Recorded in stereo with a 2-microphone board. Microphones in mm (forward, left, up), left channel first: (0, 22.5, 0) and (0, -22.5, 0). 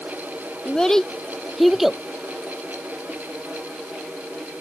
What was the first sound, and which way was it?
A child speaking, 15° left (ahead or behind).